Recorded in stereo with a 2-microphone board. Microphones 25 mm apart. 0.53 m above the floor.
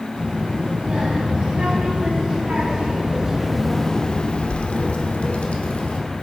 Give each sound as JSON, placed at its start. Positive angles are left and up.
{"t": 0.1, "sound": "a child speaking", "side_deg": -65, "distance_m": 3.0}